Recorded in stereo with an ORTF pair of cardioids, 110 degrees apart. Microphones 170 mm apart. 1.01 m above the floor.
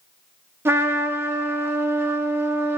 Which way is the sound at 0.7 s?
15° right.